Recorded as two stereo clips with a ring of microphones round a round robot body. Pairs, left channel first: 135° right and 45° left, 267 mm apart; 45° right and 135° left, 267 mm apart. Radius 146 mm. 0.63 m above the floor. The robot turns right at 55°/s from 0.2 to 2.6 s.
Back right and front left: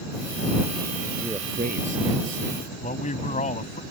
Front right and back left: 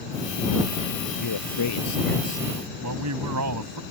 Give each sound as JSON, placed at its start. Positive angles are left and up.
{"t": 1.2, "sound": "a man speaking", "azimuth_deg": -45}
{"t": 2.8, "sound": "a man speaking", "azimuth_deg": 160}